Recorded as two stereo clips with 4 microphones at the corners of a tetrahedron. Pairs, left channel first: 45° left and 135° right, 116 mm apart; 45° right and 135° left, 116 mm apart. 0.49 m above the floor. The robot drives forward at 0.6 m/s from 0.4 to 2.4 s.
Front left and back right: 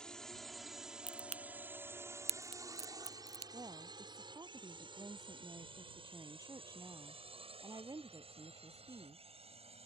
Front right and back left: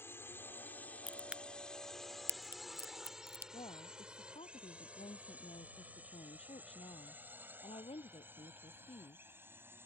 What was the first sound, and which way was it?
A drone, 25° right.